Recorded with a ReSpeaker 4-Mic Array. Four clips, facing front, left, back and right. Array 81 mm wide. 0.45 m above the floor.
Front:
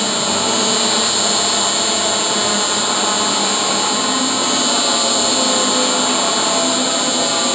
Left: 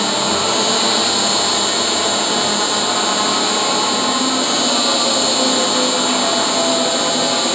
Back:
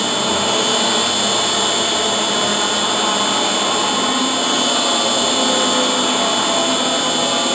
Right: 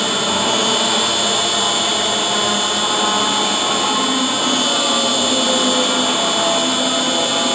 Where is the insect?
120° right, 1.4 m.